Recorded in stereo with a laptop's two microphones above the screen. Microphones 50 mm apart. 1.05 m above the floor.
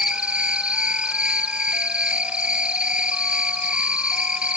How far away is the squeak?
I don't hear a squeak.